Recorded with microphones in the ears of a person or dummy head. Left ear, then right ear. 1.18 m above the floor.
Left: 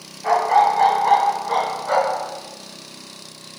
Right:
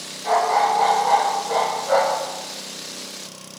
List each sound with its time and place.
0.2 s a dog barking: 60° left (ahead or behind), 2.5 m; by 2.2 s 75° left (ahead or behind), 3 m